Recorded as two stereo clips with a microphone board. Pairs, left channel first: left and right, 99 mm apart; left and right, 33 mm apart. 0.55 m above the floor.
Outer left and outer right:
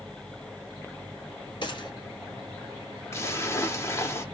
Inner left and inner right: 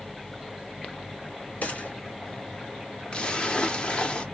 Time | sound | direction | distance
1.6 | a gunshot | 50° left (ahead or behind) | 1.9 m
3.1 | a splash | 30° left (ahead or behind) | 0.9 m